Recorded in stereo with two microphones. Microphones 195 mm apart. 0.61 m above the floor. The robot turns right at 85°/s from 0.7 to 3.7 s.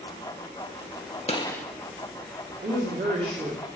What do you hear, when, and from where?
1.3 s a gunshot: 145° left, 0.8 m; by 1.6 s 175° left, 0.8 m
2.6 s a woman speaking: 95° right, 1.7 m; by 3.7 s 10° right, 1.7 m